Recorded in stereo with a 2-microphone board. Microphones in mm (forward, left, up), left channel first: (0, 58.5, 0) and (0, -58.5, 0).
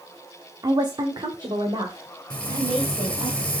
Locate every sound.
0.6 s a woman speaking: 35° right (ahead or behind), 1.0 m; by 3.3 s 55° right (ahead or behind), 3.5 m
2.3 s frying: 5° left (ahead or behind), 2 m